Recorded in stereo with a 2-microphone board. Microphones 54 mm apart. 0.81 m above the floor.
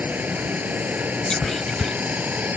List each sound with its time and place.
0.0 s running water: 30° right (ahead or behind)
1.3 s whispering: 5° left (ahead or behind)